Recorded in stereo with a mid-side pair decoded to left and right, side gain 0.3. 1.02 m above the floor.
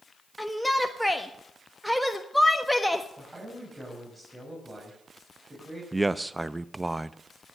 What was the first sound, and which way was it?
A shout, straight ahead.